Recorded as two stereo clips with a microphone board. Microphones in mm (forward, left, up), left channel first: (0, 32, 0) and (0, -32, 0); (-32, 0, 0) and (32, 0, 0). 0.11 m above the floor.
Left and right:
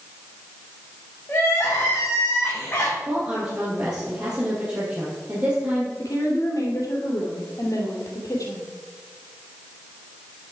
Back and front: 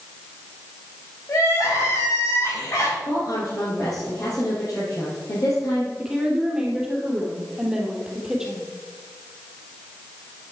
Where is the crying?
145° left, 4 m.